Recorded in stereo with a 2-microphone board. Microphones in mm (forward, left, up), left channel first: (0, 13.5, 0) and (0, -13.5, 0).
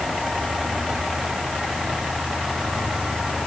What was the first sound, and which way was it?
Only background noise.